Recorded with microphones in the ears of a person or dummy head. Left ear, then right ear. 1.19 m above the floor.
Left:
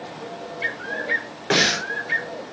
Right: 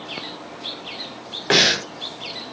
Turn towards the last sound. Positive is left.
turn(degrees=-20)  # may be behind; listen again after turning